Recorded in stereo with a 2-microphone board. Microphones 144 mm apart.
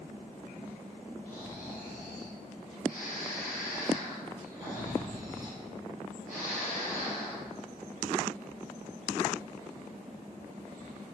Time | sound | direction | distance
1.2 | snoring | 60° left (ahead or behind) | 4 m